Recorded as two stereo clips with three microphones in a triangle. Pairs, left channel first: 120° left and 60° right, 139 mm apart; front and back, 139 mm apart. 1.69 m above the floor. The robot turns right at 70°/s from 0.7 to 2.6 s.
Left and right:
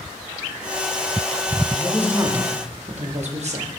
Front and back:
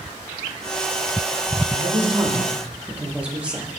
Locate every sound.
1.7 s a man speaking: 160° right, 0.7 m; by 3.7 s 100° right, 0.7 m